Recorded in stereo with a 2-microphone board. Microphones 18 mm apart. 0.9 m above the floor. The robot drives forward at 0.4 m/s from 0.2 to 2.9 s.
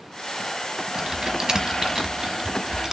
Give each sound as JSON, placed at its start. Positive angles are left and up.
{"t": 1.0, "sound": "typing on a keyboard", "side_deg": -45, "distance_m": 1.0}